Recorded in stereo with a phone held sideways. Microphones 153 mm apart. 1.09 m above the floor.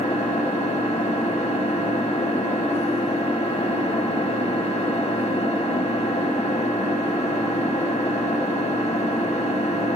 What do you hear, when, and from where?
0.0 s an engine running: 45° left (ahead or behind), 1.1 m